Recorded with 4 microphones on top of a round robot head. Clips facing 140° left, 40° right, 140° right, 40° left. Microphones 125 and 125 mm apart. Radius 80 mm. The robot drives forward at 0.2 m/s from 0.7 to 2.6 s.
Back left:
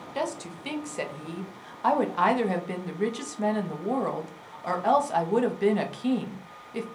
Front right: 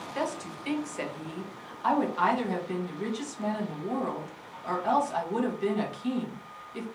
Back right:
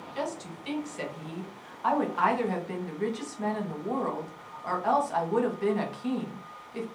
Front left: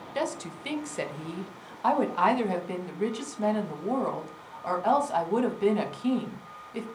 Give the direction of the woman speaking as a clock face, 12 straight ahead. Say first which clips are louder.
Back left 2 dB, front left 3 dB; 10 o'clock.